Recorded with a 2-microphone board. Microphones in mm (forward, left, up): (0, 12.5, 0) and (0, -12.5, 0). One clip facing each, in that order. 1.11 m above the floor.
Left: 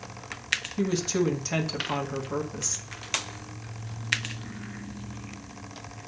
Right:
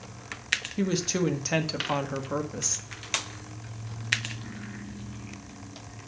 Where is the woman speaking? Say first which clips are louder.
Left 2 dB; 25° right (ahead or behind), 1.4 m.